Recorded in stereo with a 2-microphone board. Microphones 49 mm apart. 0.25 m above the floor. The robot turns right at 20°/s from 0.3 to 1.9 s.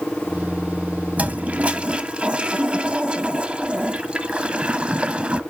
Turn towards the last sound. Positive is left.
turn(degrees=-25)  # may be behind; listen again after turning